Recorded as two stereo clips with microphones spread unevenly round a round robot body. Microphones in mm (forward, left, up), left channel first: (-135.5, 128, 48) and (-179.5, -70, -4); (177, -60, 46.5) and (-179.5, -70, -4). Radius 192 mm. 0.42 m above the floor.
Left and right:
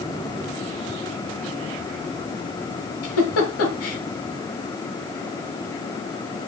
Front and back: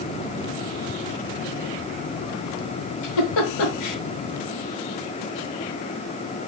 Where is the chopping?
No chopping in this recording.